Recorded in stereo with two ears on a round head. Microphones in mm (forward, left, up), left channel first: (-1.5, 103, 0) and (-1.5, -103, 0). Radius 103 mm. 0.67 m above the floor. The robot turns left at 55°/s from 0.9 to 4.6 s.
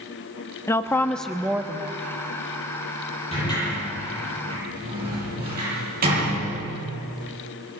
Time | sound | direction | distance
0.7 | a woman speaking | 20° left | 1.0 m
3.3 | a sliding door | 30° left (ahead or behind) | 10 m